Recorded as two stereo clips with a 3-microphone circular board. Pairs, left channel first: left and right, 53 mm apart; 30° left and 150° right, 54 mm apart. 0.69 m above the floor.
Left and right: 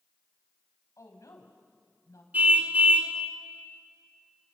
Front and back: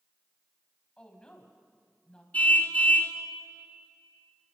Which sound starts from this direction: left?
A woman speaking, at 1.0 s.